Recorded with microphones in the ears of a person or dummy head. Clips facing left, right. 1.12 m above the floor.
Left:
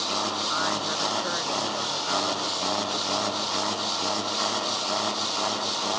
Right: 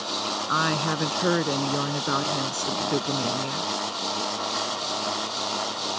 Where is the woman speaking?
75° right (ahead or behind).